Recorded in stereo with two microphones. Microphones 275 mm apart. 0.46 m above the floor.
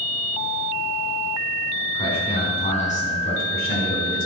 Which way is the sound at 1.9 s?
20° left (ahead or behind).